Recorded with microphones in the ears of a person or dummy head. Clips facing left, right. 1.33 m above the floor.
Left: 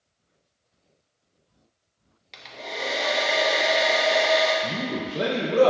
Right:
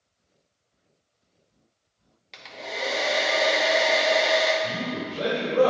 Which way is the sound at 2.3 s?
Centre (ahead or behind).